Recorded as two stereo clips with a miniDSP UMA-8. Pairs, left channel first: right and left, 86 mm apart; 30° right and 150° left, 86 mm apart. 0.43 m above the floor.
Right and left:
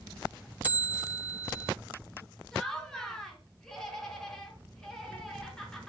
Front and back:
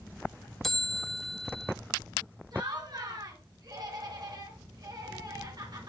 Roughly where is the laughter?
Behind.